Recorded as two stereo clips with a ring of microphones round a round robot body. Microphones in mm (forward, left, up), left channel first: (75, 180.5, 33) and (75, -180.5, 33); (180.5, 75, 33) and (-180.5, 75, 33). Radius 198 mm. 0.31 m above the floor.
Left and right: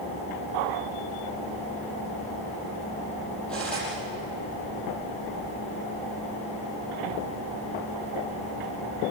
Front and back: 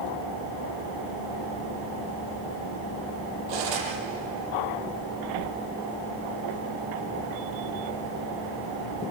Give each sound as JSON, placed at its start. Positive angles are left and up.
{"t": 3.5, "sound": "cutlery clinking", "azimuth_deg": 180, "distance_m": 6.5}